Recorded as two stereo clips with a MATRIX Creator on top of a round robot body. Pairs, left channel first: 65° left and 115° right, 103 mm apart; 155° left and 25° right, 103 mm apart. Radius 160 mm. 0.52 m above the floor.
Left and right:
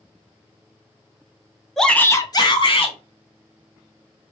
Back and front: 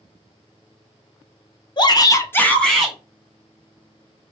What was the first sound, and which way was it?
A shout, 155° left.